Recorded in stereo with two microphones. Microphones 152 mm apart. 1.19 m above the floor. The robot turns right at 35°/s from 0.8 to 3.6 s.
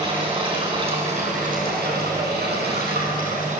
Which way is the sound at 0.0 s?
145° right.